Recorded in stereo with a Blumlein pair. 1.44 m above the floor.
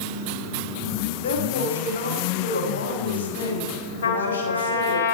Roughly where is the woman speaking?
Ahead left.